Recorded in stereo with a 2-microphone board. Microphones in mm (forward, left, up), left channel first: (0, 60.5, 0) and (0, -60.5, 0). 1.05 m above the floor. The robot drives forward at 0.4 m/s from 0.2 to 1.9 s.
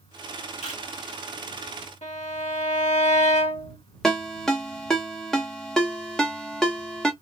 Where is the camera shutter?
70° left (ahead or behind), 2.5 m; by 0.8 s 75° left (ahead or behind), 2.5 m.